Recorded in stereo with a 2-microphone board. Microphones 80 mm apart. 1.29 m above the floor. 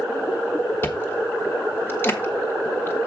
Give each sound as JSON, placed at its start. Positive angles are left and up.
{"t": 0.8, "sound": "chewing", "side_deg": 30, "distance_m": 1.2}